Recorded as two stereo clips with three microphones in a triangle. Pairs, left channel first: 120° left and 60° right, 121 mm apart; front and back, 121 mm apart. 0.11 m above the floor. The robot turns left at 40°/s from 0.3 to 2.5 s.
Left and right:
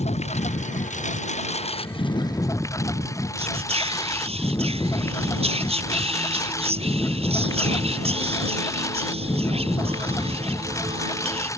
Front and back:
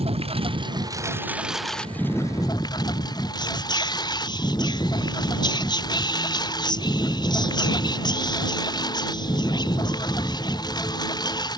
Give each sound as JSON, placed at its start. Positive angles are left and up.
{"t": 0.0, "sound": "a lawn mower", "azimuth_deg": 145}
{"t": 3.4, "sound": "whispering", "azimuth_deg": -45}